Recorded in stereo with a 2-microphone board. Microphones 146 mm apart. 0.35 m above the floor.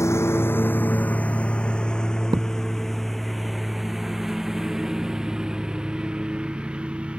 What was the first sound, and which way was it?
A lawn mower, 20° left (ahead or behind).